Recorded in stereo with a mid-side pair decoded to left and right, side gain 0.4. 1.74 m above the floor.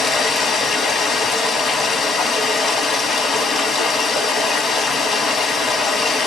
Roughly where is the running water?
Ahead left.